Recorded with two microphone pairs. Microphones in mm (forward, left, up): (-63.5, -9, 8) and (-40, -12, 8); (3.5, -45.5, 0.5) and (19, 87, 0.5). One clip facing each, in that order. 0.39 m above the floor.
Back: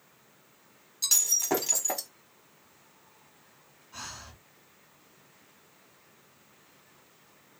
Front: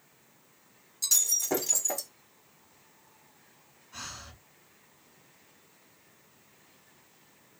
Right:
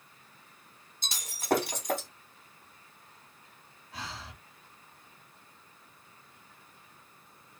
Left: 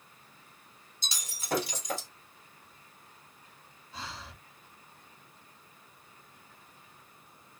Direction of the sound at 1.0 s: 135° right.